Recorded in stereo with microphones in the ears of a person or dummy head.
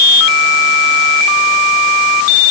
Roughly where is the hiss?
I don't hear a hiss.